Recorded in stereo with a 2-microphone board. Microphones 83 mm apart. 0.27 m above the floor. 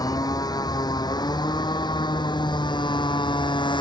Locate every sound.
0.0 s a motorcycle: 55° left (ahead or behind); by 3.8 s 80° left